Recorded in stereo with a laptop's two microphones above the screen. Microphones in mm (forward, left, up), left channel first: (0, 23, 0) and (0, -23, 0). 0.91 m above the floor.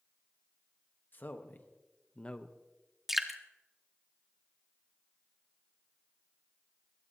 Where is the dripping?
5° right (ahead or behind), 1.4 m.